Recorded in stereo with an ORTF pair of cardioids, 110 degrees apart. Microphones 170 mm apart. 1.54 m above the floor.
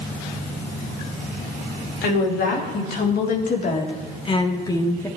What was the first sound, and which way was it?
A woman speaking, 70° left.